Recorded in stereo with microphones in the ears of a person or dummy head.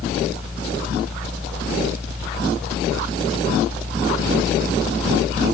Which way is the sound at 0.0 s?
5° left (ahead or behind).